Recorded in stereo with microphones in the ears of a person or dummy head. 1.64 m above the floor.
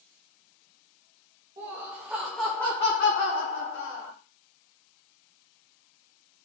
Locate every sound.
1.6 s laughter: 25° right (ahead or behind), 1.4 m; by 4.1 s 80° left, 1.4 m